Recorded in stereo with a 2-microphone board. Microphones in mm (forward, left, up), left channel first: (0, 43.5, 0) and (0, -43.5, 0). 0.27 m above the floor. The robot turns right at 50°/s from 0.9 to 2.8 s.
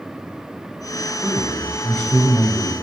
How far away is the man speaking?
About 1.3 m.